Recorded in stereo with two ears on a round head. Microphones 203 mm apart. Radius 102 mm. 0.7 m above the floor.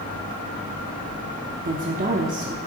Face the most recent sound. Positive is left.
turn(degrees=-35)  # may be behind; listen again after turning